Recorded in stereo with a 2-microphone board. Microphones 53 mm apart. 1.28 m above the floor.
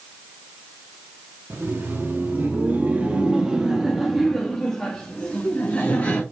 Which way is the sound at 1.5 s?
45° right (ahead or behind).